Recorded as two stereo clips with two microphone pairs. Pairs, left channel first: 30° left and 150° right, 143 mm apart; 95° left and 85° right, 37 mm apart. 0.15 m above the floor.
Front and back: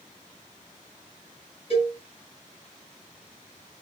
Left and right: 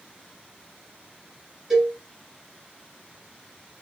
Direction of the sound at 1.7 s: 5° right.